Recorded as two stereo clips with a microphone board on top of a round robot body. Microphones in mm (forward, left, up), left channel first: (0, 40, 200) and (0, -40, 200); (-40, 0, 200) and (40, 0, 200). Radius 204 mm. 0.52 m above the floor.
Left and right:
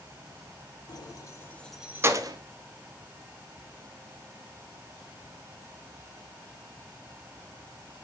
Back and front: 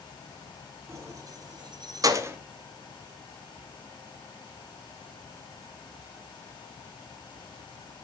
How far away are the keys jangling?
About 1.7 m.